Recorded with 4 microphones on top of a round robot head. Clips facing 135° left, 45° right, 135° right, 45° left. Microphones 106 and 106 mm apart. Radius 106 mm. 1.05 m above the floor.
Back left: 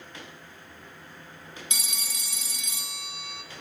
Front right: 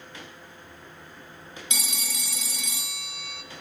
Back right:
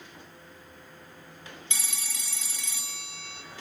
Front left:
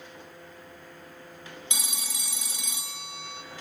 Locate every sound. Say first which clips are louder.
1.7 s a phone ringing: front right 4 dB, front left 2 dB; 30° right, 0.5 m